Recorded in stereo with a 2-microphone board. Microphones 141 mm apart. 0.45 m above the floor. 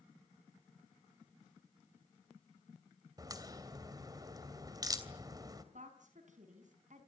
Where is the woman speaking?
65° right (ahead or behind), 4.5 m.